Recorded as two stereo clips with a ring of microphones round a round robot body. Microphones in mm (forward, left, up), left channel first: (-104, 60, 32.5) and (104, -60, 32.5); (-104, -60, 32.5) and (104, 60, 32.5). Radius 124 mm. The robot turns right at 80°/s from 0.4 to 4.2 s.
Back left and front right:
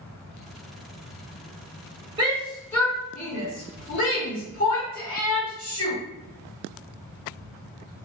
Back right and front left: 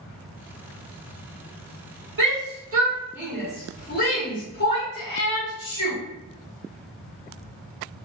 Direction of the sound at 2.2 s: 30° left.